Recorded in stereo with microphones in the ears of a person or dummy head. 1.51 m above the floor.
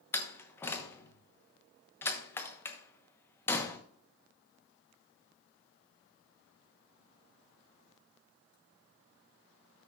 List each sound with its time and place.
0.1 s a door slam: 15° left (ahead or behind), 0.9 m